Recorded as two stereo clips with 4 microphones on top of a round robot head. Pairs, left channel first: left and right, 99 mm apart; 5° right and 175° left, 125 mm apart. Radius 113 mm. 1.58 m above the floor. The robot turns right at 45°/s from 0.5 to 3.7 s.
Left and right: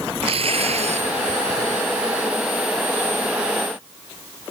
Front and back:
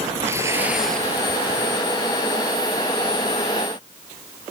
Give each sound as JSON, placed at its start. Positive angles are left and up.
{"t": 0.2, "sound": "tearing paper", "azimuth_deg": -110}